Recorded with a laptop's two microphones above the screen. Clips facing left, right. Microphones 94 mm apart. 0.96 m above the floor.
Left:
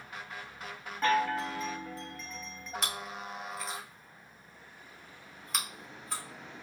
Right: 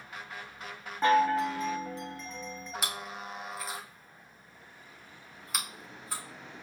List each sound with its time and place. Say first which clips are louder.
1.0 s a chime: right 4 dB; 20° right (ahead or behind), 0.5 m
2.8 s chewing: left 1 dB; 5° right (ahead or behind), 0.8 m